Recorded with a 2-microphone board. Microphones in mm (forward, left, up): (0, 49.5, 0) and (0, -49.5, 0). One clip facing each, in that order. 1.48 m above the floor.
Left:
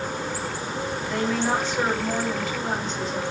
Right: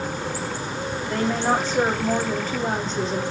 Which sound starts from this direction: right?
A woman speaking, at 1.1 s.